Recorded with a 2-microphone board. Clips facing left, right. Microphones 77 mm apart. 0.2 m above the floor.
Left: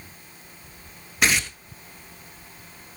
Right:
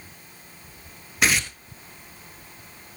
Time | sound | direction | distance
1.2 | tearing paper | centre (ahead or behind) | 1.1 m